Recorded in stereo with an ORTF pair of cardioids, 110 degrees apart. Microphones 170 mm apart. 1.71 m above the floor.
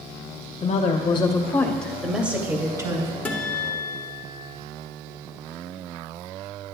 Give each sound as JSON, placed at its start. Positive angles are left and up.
{"t": 0.6, "sound": "a woman speaking", "azimuth_deg": 45, "distance_m": 1.1}
{"t": 3.2, "sound": "a guitar", "azimuth_deg": 10, "distance_m": 1.2}